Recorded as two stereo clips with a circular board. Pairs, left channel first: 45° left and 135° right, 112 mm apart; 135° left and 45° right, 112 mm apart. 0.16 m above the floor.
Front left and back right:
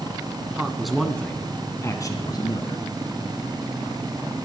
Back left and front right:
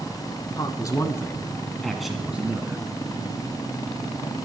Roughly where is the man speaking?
Behind left.